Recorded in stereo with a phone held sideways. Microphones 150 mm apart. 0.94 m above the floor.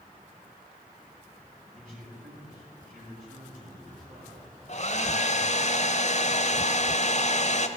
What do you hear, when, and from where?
1.7 s a man speaking: 75° right (ahead or behind), 7.5 m
4.7 s a hair dryer: 50° left (ahead or behind), 0.9 m